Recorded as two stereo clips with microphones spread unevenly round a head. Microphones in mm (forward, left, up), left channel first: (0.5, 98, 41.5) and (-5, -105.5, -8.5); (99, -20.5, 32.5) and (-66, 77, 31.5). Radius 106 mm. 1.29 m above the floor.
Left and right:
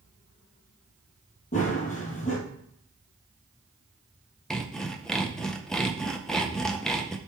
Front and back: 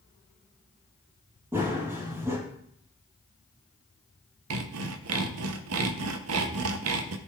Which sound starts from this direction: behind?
Sawing, at 4.5 s.